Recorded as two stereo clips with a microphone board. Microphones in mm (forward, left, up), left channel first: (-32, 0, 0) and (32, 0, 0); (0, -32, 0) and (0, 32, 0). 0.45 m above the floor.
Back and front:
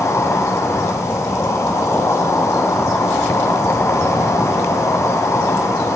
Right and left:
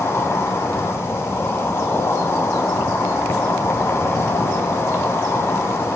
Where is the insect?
140° right, 1.6 m.